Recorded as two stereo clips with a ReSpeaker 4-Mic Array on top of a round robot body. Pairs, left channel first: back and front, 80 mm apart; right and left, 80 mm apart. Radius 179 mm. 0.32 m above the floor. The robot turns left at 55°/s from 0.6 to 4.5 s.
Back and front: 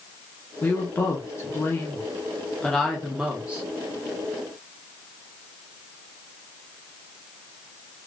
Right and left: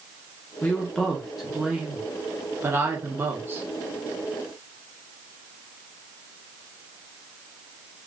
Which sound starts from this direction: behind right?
A woman speaking, at 0.6 s.